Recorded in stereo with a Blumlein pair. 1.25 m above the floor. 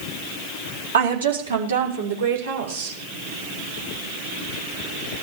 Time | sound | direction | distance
0.9 | a woman speaking | 70° right | 3.5 m